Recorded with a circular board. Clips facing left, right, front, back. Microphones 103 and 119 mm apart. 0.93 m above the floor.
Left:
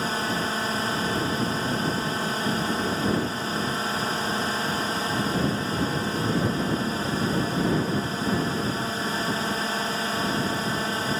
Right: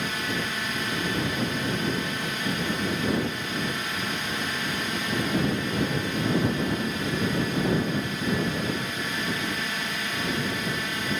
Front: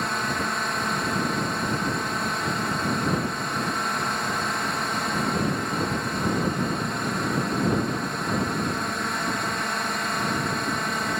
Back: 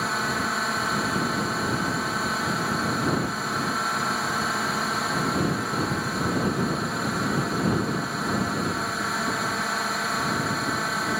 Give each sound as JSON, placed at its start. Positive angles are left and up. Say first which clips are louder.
{"t": 0.0, "sound": "a drone", "louder": "left 3 dB, even", "azimuth_deg": 95}